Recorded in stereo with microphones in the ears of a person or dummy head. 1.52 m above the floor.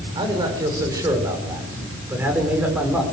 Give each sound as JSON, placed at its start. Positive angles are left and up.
{"t": 0.1, "sound": "a man speaking", "side_deg": -25, "distance_m": 6.0}